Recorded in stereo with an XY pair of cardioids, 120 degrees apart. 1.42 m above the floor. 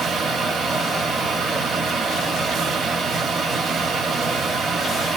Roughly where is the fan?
Ahead right.